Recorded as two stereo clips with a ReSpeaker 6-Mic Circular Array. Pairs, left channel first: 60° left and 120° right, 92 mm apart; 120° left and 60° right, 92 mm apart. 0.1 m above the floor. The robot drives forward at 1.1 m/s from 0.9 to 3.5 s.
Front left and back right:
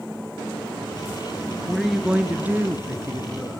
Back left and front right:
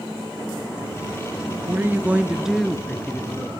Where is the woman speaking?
25° right, 1.4 m; by 3.5 s 170° right, 1.9 m.